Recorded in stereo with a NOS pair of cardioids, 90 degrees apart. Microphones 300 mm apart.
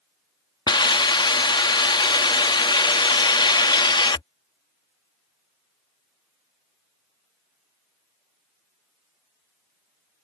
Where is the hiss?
15° left.